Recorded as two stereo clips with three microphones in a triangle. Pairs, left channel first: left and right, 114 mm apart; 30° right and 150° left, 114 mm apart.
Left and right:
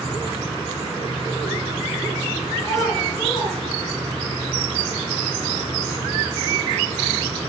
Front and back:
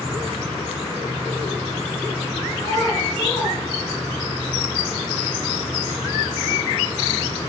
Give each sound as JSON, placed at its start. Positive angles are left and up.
{"t": 2.6, "sound": "a child speaking", "azimuth_deg": 25, "distance_m": 5.0}